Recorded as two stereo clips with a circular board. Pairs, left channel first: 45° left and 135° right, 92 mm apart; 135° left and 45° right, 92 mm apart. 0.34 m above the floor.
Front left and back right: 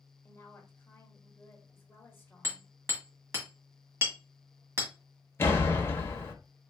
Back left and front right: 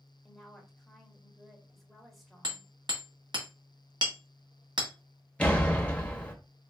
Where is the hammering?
75° right, 1.8 m.